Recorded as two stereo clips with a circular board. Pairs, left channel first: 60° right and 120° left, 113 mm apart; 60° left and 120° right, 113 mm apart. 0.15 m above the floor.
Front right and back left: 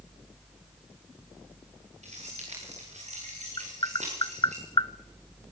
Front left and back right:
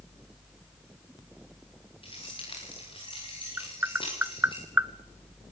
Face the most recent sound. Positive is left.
turn(degrees=-60)